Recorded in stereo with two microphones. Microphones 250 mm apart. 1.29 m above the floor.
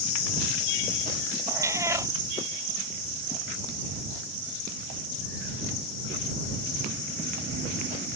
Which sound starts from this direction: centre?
A cat meowing, at 1.5 s.